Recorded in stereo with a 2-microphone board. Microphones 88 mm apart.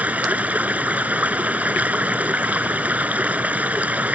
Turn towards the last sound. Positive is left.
turn(degrees=-15)  # may be behind; listen again after turning